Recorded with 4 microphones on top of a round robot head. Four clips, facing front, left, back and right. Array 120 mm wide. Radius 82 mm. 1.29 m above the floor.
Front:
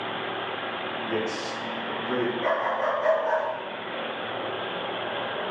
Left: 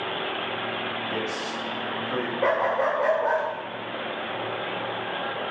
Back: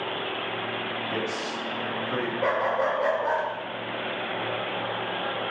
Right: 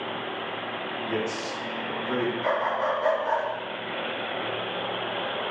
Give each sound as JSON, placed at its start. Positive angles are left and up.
{"t": 1.1, "sound": "a man speaking", "azimuth_deg": -40, "distance_m": 1.8}
{"t": 2.4, "sound": "a dog barking", "azimuth_deg": 110, "distance_m": 1.6}